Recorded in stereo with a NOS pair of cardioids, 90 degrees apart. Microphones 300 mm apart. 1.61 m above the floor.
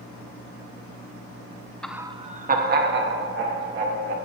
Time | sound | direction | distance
1.8 | laughter | 5° left | 0.8 m